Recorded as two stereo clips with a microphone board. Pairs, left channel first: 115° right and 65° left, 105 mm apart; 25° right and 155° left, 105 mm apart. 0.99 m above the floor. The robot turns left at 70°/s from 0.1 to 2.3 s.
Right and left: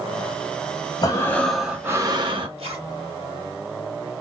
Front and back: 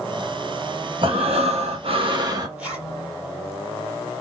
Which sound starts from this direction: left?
A zipper, at 2.6 s.